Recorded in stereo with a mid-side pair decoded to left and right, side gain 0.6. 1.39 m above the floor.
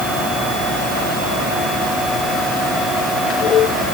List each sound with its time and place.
Only background noise.